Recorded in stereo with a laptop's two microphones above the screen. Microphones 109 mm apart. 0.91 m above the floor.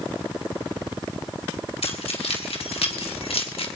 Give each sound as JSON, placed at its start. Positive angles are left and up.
{"t": 1.8, "sound": "keys jangling", "side_deg": 85, "distance_m": 2.5}